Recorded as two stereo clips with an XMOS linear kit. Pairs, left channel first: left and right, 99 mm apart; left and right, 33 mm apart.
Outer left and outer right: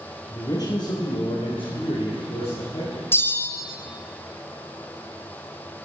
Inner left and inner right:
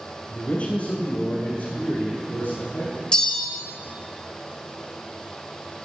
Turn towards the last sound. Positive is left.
turn(degrees=25)  # may be behind; listen again after turning